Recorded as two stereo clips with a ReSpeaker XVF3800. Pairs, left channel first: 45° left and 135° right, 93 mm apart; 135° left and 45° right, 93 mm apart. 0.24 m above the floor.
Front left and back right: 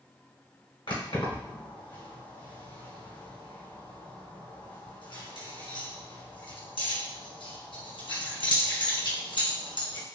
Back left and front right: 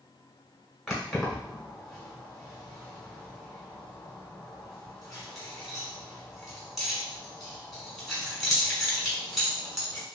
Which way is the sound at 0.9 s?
45° left.